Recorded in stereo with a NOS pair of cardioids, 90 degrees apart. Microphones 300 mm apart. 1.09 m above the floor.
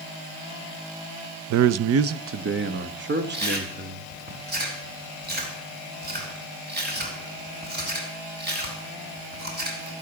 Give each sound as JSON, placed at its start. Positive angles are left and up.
{"t": 1.5, "sound": "a man speaking", "azimuth_deg": -70, "distance_m": 0.6}
{"t": 3.3, "sound": "chewing", "azimuth_deg": -35, "distance_m": 5.0}